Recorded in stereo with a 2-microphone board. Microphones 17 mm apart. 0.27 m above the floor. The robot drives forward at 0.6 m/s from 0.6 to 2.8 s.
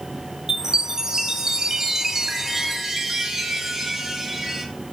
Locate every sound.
0.5 s a chime: 35° right (ahead or behind), 0.8 m; by 4.7 s 25° right (ahead or behind), 1.2 m